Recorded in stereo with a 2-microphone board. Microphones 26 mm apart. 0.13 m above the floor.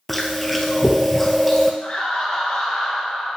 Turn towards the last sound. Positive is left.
turn(degrees=40)  # may be behind; listen again after turning